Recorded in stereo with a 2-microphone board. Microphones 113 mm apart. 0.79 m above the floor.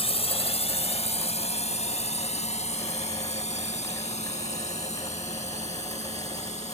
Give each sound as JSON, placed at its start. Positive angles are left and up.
{"t": 0.0, "sound": "a drone", "side_deg": 60}